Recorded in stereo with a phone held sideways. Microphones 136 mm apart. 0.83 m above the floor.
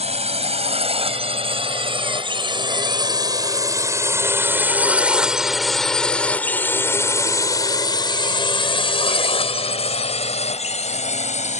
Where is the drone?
50° right (ahead or behind); by 11.6 s 60° left (ahead or behind).